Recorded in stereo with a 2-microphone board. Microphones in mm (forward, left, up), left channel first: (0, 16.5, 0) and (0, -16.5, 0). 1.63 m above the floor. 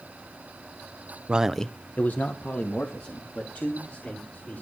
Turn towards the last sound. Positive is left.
turn(degrees=70)  # may be behind; listen again after turning